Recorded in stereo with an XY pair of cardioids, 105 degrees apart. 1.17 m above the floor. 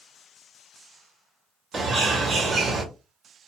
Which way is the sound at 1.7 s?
45° right.